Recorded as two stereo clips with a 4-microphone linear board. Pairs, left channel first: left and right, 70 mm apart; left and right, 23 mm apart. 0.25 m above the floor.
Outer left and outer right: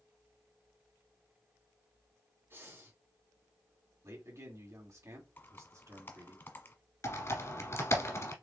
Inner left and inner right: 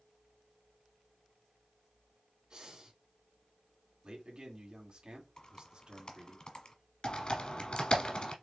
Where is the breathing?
30° right (ahead or behind), 2.5 m.